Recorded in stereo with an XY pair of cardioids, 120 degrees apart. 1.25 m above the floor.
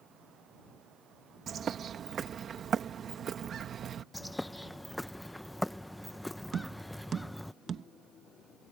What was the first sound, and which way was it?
A bird, 40° right.